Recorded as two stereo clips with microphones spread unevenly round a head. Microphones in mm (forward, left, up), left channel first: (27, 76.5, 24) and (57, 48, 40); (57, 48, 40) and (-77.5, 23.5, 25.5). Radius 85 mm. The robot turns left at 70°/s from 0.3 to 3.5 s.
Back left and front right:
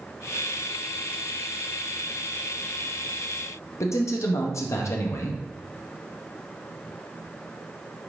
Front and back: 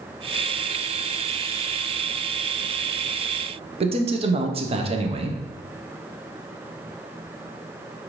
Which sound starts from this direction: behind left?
A man speaking, at 3.8 s.